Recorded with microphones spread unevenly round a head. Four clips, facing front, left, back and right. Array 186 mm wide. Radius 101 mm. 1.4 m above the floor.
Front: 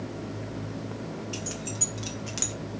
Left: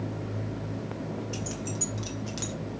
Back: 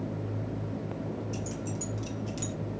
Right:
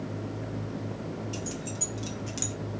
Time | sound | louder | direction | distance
1.3 | keys jangling | left 1 dB, even | 40° left | 3 m